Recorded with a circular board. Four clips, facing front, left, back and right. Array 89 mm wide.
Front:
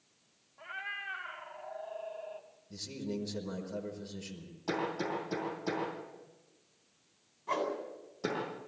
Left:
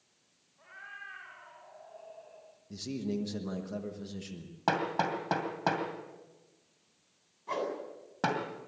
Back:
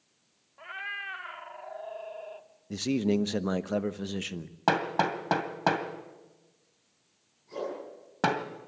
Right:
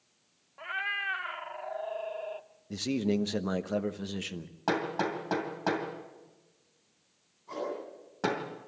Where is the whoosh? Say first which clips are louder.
Left 2 dB, front 2 dB; 30° left, 7.5 m.